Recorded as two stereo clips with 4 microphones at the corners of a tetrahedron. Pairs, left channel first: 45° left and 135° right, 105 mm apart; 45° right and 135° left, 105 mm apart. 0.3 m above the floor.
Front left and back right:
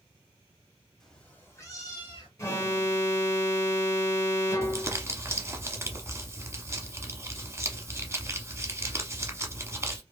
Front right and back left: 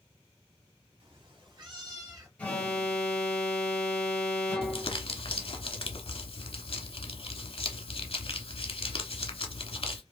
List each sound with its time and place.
1.0 s a cat meowing: 130° left, 0.8 m; by 2.3 s 85° left, 1.1 m
2.4 s an alarm: 20° left, 0.7 m
4.6 s crumpling: 70° right, 0.6 m